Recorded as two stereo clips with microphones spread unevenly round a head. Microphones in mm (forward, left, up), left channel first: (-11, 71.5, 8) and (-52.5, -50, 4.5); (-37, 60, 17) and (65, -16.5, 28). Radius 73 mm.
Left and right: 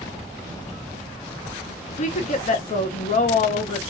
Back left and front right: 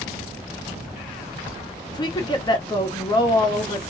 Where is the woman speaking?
95° left, 1.0 m.